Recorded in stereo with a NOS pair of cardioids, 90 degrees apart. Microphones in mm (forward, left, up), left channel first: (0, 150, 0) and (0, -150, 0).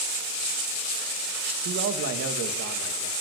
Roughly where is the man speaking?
Ahead right.